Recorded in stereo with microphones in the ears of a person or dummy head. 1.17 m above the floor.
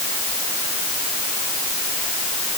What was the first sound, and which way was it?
Only background noise.